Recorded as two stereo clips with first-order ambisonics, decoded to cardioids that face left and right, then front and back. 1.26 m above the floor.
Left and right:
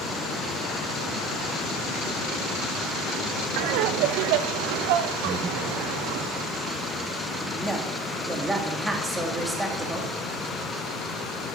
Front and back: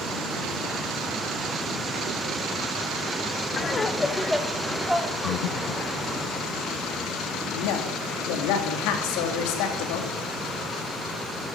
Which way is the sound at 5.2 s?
15° right.